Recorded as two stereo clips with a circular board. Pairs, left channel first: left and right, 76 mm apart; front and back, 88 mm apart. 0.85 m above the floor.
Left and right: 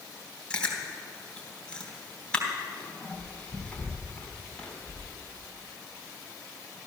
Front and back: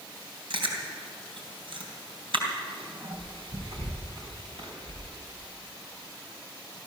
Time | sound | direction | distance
0.5 | chewing | 165° left | 3 m